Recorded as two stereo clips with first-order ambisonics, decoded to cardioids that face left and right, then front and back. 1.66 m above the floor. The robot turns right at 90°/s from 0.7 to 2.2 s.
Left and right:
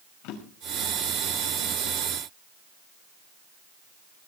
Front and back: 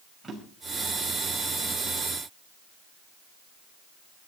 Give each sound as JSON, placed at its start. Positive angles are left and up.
{"t": 0.2, "sound": "a drawer", "azimuth_deg": 95, "distance_m": 5.5}